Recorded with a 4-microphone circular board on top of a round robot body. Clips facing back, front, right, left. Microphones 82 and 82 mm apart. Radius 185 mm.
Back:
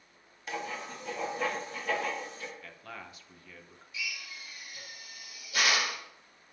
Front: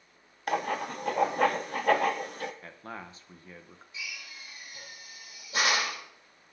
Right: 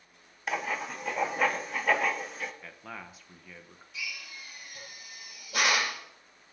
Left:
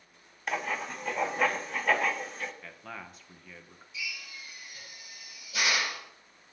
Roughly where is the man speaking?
Ahead.